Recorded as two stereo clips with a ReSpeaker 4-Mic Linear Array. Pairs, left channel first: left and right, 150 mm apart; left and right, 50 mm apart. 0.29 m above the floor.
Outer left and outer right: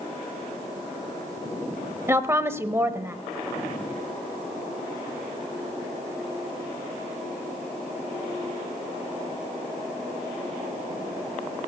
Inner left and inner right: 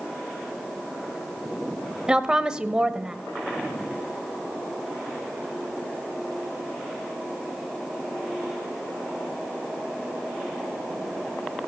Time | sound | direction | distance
2.1 | a woman speaking | 15° right (ahead or behind) | 0.9 m